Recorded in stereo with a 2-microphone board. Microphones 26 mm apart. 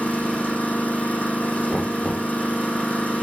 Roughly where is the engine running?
Left.